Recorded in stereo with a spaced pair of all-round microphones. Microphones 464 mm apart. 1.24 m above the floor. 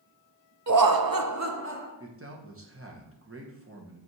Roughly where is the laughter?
Right.